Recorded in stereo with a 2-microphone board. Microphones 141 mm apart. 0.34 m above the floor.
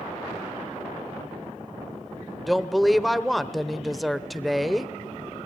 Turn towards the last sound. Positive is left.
turn(degrees=0)  # may be behind; listen again after turning